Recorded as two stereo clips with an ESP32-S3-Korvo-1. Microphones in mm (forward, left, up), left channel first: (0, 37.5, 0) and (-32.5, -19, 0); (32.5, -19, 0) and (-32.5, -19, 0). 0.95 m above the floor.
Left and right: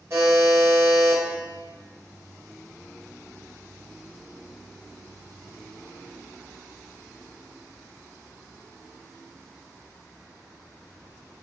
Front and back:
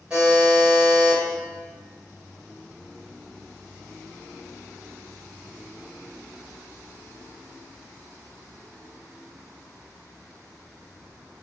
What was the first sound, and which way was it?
A buzzer, 110° right.